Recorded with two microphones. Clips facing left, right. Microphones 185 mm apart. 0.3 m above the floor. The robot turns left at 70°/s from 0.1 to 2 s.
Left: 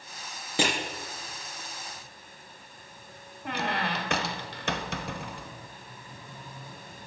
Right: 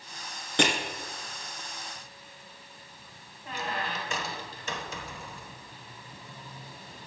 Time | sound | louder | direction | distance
0.6 | crushing | right 1 dB | 5° left (ahead or behind) | 3.5 m
3.5 | a squeak | left 4 dB | 75° left (ahead or behind) | 0.6 m